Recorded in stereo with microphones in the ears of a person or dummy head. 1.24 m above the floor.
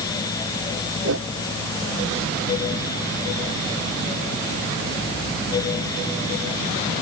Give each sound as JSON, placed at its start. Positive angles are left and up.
{"t": 1.0, "sound": "a whoosh", "side_deg": -80}